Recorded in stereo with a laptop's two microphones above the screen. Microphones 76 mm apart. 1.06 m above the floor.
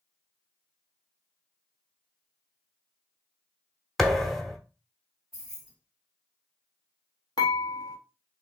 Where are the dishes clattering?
75° left (ahead or behind), 1.0 m.